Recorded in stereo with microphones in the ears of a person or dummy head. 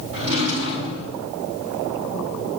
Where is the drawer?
80° right, 6 m.